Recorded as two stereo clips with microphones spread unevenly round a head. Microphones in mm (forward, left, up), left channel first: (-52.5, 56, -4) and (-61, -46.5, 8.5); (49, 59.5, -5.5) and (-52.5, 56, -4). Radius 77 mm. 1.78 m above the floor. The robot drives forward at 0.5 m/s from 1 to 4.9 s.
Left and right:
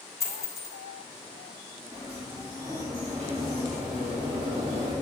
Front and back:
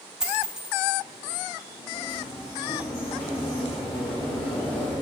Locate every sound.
0.2 s a dropped coin: 110° left, 1.3 m
1.9 s a sliding door: 45° right, 2.5 m; by 4.9 s 75° right, 2.0 m